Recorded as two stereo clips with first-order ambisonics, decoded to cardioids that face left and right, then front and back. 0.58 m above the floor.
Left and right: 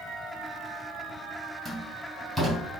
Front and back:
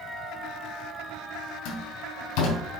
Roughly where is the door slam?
Ahead.